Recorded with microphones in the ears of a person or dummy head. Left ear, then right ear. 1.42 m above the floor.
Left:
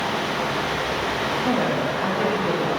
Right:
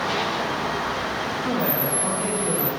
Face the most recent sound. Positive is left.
turn(degrees=25)  # may be behind; listen again after turning